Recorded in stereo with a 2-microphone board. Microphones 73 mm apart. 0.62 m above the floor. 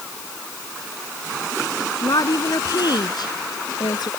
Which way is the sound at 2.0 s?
60° left (ahead or behind).